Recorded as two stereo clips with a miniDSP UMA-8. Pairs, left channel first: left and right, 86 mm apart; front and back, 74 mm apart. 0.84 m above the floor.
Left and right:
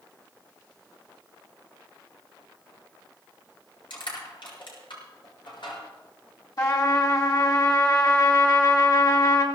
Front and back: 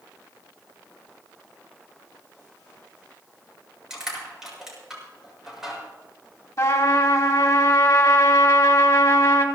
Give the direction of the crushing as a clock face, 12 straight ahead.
9 o'clock.